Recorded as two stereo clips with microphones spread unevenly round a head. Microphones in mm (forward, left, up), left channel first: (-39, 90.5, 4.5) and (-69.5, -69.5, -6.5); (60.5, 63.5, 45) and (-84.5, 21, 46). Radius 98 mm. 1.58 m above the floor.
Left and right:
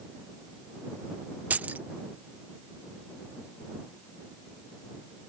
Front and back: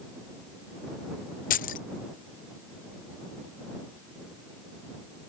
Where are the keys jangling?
20° right.